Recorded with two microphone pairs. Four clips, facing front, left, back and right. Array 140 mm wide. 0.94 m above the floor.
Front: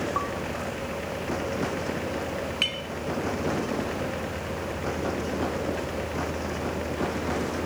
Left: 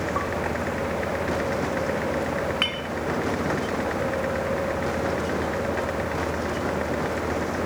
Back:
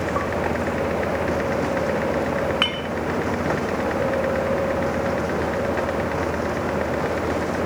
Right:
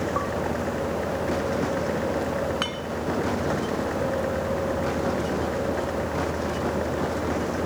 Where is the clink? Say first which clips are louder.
Even, back 8 dB; 170° right.